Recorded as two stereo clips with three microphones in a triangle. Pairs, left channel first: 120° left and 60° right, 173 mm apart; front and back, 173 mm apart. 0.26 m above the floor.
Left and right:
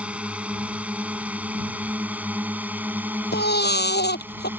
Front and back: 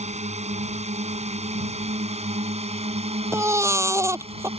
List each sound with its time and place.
0.0 s a drone: 140° right; by 4.6 s 135° right
3.3 s a baby crying: 105° left